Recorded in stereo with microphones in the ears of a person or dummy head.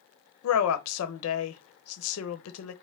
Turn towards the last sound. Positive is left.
turn(degrees=80)